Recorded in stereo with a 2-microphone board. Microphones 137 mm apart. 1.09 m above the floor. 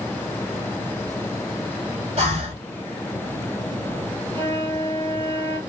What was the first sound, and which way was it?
Breathing, 50° right (ahead or behind).